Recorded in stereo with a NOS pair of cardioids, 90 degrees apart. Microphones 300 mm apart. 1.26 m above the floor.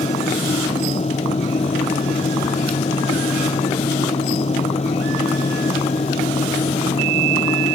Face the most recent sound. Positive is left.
turn(degrees=20)